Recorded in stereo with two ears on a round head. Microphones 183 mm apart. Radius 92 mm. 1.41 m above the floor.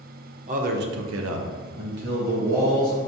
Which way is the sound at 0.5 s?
35° right (ahead or behind).